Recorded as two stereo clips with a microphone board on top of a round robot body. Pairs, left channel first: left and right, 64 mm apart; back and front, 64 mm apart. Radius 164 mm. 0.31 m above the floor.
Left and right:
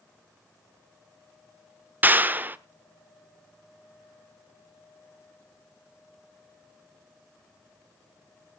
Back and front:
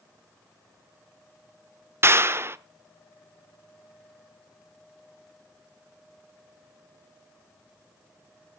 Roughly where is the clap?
Ahead right.